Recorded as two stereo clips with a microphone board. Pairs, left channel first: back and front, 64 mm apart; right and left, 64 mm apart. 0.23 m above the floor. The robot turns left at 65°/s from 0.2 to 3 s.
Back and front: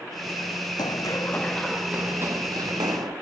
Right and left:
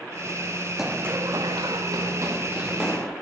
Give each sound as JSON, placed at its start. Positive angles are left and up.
{"t": 0.8, "sound": "running footsteps", "azimuth_deg": 175, "distance_m": 0.7}